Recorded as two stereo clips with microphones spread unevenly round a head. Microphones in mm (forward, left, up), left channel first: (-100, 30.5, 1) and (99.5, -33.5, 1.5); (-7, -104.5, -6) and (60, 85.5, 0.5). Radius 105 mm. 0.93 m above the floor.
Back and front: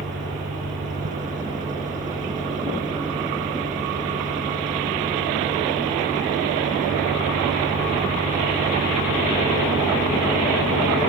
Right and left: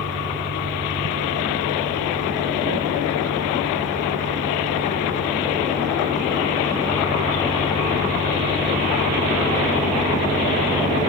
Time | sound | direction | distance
0.0 | an engine running | 40° left | ?